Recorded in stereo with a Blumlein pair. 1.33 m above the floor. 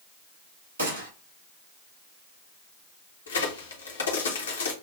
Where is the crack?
70° left, 1.4 m.